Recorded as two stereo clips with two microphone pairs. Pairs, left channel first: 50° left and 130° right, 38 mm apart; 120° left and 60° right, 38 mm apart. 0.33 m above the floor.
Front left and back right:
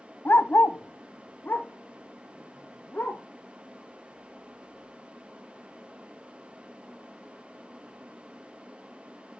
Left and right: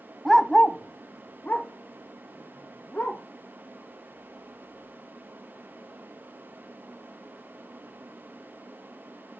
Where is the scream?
I don't hear a scream.